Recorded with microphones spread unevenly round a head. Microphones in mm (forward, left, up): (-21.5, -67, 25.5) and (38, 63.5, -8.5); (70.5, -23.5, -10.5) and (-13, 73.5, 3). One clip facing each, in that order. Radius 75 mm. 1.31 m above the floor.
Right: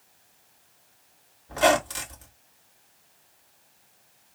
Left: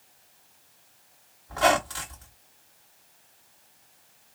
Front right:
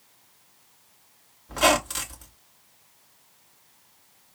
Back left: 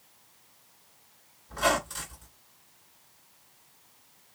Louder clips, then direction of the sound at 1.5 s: Right 2 dB, front right 5 dB; 50° right.